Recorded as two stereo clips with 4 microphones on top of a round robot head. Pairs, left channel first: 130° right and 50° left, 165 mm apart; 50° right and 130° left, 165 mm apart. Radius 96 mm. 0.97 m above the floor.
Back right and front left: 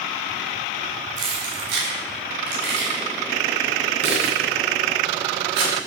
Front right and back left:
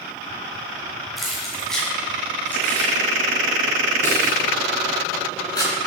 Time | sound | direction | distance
1.2 | keys jangling | 40° left | 5 m